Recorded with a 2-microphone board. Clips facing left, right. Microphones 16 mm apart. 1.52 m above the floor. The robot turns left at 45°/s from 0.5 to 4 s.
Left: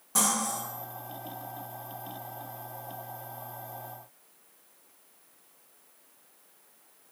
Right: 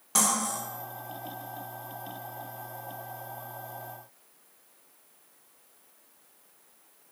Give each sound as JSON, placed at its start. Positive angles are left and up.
{"t": 0.1, "sound": "cutlery clinking", "side_deg": -40, "distance_m": 1.0}